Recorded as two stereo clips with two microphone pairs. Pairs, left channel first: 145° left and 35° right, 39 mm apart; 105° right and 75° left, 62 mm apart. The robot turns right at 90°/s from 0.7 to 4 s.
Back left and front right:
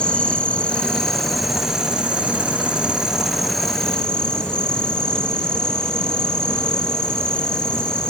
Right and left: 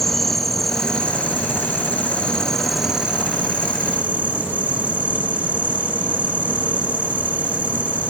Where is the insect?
170° left, 1.3 m; by 8.1 s 105° left, 1.3 m.